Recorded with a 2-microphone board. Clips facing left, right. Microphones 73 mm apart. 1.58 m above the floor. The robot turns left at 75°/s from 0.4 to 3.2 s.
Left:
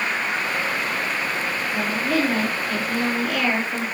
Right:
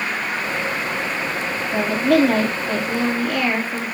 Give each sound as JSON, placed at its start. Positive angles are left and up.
{"t": 1.7, "sound": "a woman speaking", "azimuth_deg": -70, "distance_m": 3.5}